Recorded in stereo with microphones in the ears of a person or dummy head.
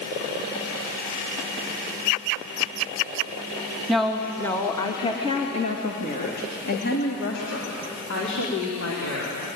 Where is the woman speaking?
5° right (ahead or behind), 2.5 m; by 9.3 s 75° left (ahead or behind), 5 m.